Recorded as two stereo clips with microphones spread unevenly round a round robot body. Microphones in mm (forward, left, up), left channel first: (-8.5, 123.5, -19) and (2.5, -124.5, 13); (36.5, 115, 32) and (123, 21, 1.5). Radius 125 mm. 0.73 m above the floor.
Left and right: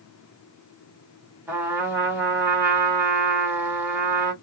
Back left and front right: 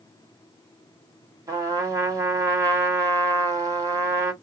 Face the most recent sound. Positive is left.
turn(degrees=0)